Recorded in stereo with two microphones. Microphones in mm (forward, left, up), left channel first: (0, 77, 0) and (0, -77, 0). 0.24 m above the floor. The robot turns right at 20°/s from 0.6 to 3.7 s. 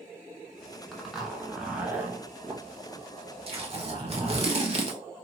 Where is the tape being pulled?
40° right (ahead or behind), 0.6 m; by 5.0 s 45° right (ahead or behind), 0.6 m.